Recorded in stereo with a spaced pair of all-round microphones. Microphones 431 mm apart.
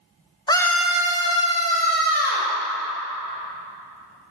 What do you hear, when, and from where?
0.5 s a scream: 10° left (ahead or behind), 0.8 m; by 2.5 s 25° right (ahead or behind), 2.0 m